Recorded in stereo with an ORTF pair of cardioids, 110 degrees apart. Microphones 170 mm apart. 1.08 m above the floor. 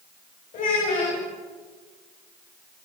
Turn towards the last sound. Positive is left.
turn(degrees=55)